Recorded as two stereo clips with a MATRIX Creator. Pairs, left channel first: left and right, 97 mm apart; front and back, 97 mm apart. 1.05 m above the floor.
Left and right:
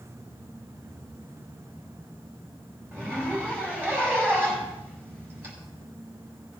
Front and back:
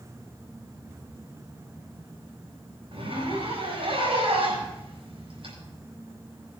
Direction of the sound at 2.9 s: 160° right.